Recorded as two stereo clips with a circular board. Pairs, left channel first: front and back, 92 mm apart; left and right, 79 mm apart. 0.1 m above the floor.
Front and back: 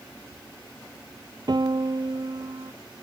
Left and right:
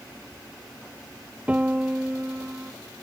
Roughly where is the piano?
Behind.